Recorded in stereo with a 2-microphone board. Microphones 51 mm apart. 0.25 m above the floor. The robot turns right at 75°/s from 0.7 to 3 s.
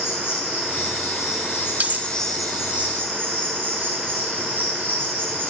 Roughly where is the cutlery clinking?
Right.